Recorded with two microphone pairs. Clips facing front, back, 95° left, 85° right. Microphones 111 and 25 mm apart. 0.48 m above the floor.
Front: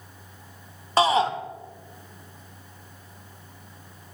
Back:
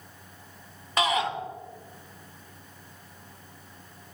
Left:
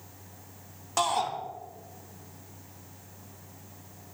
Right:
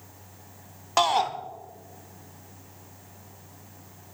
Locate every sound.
1.0 s a shout: 45° right, 0.9 m